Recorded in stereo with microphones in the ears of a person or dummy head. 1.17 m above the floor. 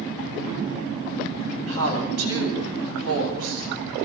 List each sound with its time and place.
1.7 s a woman speaking: 80° right, 7.5 m